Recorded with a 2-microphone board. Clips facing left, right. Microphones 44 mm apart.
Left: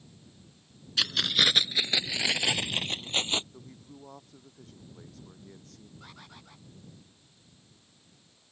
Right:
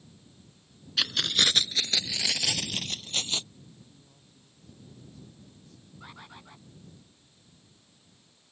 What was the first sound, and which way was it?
Keys jangling, 5° right (ahead or behind).